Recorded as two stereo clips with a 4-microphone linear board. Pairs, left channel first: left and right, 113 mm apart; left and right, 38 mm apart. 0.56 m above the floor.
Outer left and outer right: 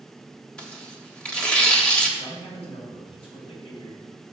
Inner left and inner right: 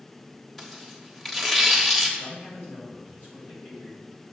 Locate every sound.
0.6 s tearing paper: 10° left (ahead or behind), 1.1 m
2.2 s a man speaking: 55° left (ahead or behind), 2.5 m